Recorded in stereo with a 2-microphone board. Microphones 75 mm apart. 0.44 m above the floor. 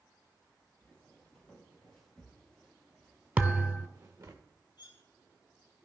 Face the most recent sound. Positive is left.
turn(degrees=65)  # may be behind; listen again after turning